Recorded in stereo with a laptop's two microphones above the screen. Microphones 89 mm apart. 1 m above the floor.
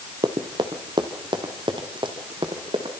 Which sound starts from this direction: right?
Running footsteps, at 0.2 s.